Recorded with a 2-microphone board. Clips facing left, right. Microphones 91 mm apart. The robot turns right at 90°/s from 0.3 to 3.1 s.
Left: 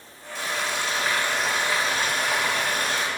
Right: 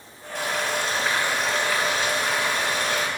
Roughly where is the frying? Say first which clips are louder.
Right 2 dB; right.